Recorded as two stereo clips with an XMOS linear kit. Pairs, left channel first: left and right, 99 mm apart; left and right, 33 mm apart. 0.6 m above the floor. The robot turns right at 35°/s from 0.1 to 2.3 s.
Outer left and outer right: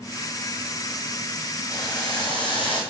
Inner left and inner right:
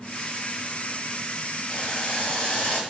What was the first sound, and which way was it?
Boiling, 35° left (ahead or behind).